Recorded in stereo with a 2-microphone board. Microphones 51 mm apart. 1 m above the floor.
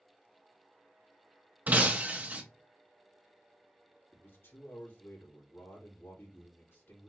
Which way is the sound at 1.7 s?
35° right (ahead or behind).